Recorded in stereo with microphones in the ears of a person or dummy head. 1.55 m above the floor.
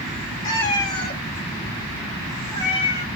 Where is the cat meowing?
20° left (ahead or behind), 1.3 m.